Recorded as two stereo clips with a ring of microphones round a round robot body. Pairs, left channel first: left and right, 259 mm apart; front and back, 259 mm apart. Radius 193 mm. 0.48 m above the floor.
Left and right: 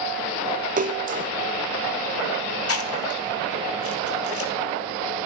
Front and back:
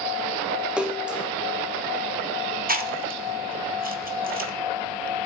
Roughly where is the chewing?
Behind left.